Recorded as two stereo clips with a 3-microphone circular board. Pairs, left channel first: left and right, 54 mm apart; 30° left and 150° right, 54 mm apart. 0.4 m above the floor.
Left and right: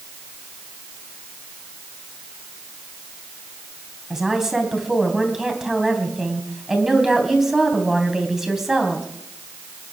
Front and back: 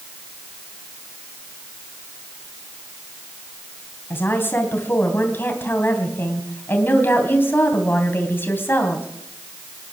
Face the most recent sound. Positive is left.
turn(degrees=-10)